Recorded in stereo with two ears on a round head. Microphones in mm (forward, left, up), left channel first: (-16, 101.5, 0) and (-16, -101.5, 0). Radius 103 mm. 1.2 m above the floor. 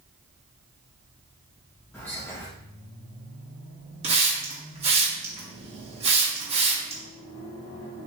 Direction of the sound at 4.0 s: 25° right (ahead or behind).